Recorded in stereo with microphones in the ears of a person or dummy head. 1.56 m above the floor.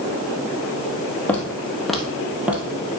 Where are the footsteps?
10° left (ahead or behind), 2 m; by 3.0 s 15° right (ahead or behind), 1.7 m.